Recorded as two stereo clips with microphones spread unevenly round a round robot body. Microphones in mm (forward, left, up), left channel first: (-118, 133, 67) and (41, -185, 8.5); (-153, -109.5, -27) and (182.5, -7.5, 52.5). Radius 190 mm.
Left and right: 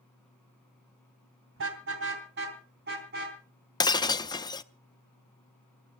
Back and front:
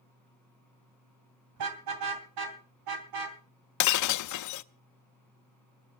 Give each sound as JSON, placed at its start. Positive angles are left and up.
{"t": 1.6, "sound": "a car horn", "azimuth_deg": -10, "distance_m": 3.0}
{"t": 3.8, "sound": "breaking glass", "azimuth_deg": -160, "distance_m": 0.6}